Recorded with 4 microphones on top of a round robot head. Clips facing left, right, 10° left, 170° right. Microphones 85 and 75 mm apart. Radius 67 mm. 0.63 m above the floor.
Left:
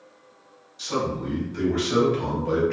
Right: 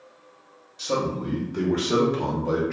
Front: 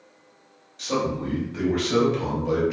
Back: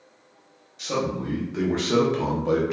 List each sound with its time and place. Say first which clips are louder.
0.8 s a man speaking: right 1 dB, front 1 dB; 85° right, 1.0 m; by 2.7 s 170° right, 0.7 m